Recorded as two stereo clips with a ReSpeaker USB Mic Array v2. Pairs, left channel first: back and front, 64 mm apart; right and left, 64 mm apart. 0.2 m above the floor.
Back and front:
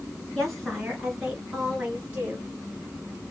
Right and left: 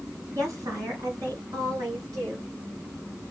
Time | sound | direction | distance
0.3 | a woman speaking | 95° left | 3 m